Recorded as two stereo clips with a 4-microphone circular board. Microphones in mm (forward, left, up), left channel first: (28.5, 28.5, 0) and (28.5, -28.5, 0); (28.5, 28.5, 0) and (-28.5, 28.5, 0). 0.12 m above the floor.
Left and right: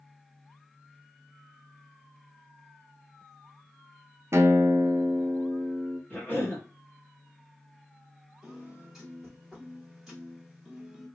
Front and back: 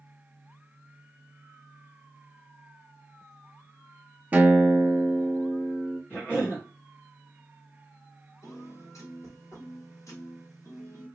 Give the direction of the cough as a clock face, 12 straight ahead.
10 o'clock.